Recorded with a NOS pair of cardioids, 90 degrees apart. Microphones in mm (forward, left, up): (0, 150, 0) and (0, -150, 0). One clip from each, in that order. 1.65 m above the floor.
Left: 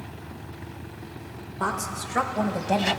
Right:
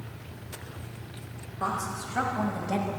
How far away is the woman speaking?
About 1.9 m.